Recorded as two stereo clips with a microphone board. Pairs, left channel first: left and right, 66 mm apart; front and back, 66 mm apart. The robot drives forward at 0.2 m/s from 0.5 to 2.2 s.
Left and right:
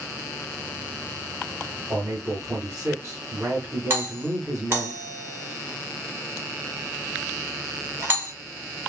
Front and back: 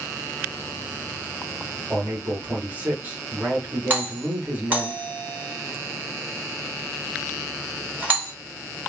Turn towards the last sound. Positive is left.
turn(degrees=-130)